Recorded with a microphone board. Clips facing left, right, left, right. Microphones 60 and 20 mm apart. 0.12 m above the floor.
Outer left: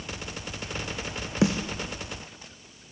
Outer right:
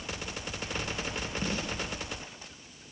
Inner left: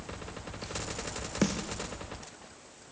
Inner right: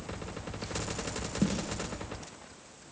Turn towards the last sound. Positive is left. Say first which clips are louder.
# outer left 12 dB, inner left 1 dB
turn(degrees=75)  # may be behind; listen again after turning